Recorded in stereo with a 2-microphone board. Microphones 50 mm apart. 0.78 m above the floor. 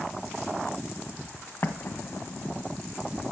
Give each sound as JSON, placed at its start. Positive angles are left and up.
{"t": 1.6, "sound": "an explosion", "side_deg": 50, "distance_m": 1.5}